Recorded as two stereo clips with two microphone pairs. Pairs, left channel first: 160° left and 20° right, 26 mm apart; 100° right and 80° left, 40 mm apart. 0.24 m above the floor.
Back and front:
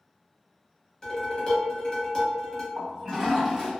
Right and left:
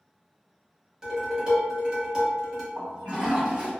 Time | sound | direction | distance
1.0 | dishes clattering | 130° left | 1.0 m
2.8 | a toilet flushing | 45° left | 1.5 m